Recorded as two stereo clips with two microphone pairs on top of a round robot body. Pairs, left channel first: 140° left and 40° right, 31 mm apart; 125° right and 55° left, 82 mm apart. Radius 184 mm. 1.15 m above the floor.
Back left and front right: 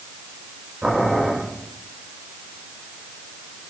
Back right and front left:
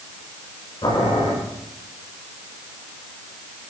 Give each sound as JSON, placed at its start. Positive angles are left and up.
{"t": 0.8, "sound": "boiling", "azimuth_deg": -95, "distance_m": 8.0}